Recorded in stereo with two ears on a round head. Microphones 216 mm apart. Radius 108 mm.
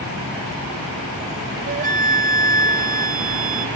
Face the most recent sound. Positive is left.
turn(degrees=-35)  # may be behind; listen again after turning